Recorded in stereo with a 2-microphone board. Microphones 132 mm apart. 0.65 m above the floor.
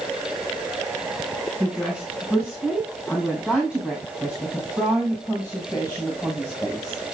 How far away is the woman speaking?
About 7 m.